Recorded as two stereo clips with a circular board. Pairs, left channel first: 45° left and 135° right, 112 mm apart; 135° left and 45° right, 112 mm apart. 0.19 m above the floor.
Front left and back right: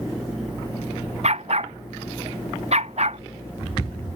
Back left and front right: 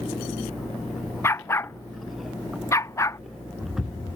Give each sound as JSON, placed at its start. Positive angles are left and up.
{"t": 1.2, "sound": "a dog barking", "azimuth_deg": -155}